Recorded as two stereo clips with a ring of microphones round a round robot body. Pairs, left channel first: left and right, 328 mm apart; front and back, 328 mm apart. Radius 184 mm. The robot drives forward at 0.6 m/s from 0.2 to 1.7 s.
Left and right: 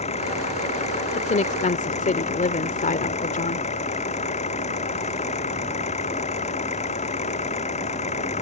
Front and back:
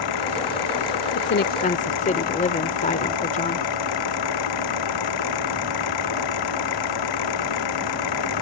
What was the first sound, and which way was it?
An engine running, 15° left.